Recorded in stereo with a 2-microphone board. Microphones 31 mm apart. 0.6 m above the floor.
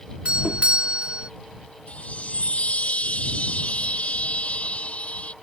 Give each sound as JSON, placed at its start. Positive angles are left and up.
{"t": 0.2, "sound": "a doorbell", "side_deg": -40}
{"t": 1.9, "sound": "a chime", "side_deg": 40}